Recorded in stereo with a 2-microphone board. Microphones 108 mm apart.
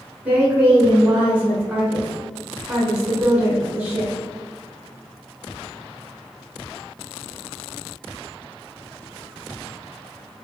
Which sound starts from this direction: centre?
A woman speaking, at 0.2 s.